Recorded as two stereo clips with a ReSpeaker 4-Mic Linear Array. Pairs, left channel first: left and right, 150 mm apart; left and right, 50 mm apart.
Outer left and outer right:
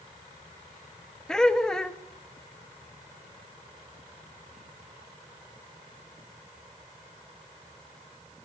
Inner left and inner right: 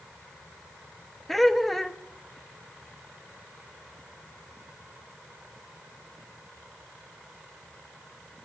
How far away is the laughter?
About 1.0 m.